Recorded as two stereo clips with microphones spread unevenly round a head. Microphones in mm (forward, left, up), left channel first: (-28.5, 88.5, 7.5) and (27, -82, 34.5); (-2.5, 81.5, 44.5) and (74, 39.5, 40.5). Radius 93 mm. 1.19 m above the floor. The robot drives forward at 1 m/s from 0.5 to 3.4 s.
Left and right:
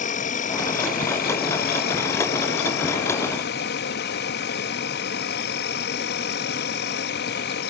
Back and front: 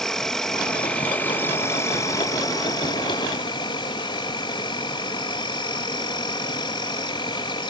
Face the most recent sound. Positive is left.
turn(degrees=125)